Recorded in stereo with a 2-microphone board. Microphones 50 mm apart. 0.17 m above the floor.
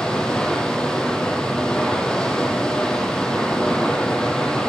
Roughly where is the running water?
Centre.